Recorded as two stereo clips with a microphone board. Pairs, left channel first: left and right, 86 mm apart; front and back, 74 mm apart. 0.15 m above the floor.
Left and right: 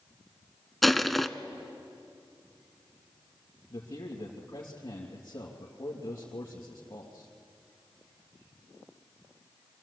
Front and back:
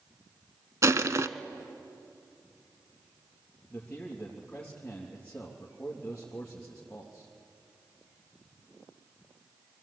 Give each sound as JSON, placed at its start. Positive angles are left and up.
{"t": 0.8, "sound": "crushing", "azimuth_deg": 180, "distance_m": 0.6}
{"t": 3.7, "sound": "a man speaking", "azimuth_deg": 65, "distance_m": 3.0}